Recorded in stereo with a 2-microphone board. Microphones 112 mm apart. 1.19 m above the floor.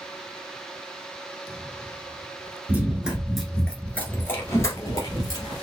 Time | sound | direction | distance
2.7 | running footsteps | 15° right (ahead or behind) | 1.2 m